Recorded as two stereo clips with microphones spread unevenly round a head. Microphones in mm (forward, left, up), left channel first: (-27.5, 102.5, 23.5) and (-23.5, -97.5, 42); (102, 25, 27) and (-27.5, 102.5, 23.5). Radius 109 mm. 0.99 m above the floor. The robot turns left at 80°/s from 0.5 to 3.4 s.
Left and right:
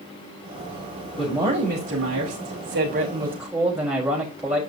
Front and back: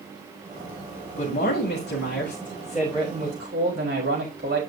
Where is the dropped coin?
No dropped coin in this recording.